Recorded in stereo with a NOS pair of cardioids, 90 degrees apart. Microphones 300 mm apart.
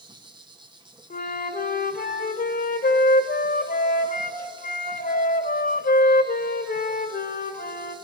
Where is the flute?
30° left, 2 m.